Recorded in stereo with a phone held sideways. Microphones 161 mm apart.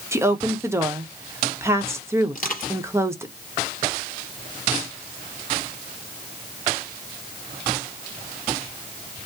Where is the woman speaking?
15° right (ahead or behind), 0.9 m.